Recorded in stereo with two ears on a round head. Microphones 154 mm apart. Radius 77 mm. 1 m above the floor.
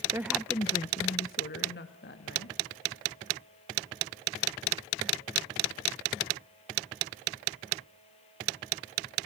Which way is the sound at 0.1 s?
20° right (ahead or behind).